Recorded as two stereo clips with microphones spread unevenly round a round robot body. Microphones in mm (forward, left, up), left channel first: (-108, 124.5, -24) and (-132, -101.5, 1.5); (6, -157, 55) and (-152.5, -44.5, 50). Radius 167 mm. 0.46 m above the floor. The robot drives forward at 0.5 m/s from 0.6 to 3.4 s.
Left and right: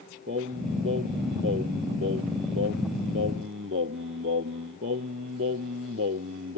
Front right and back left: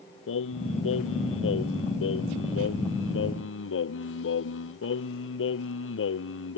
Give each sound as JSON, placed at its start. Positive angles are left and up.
{"t": 0.3, "sound": "singing", "azimuth_deg": -35}